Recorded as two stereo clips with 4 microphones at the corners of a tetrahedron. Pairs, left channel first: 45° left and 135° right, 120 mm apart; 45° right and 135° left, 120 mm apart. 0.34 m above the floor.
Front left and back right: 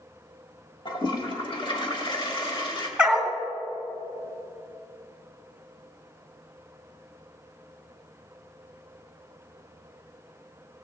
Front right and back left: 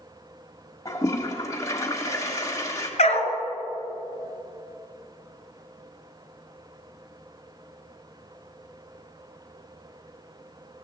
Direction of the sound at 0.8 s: 10° left.